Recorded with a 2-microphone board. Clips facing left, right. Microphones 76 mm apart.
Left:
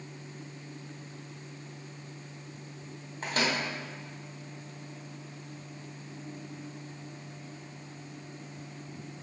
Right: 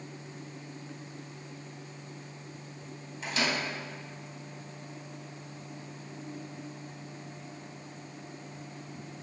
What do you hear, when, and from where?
3.2 s a microwave: 50° left (ahead or behind), 2 m